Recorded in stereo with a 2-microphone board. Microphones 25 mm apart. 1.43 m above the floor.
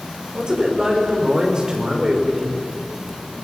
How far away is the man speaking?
About 5.5 m.